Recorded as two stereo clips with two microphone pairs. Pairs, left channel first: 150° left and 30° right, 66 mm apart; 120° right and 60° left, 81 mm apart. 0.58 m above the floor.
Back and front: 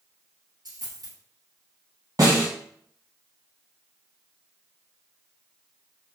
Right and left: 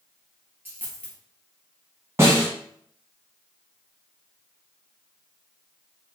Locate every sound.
0.7 s a dropped coin: 10° right, 1.7 m
2.2 s a snare drum: straight ahead, 2 m